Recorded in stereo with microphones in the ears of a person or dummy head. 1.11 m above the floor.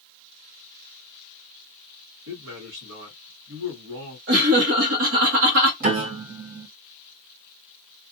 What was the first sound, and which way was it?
A man speaking, 75° right (ahead or behind).